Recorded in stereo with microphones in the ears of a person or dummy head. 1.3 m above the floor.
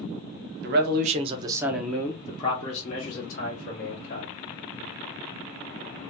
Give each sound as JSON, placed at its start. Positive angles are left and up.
{"t": 0.6, "sound": "a man speaking", "side_deg": -60, "distance_m": 0.7}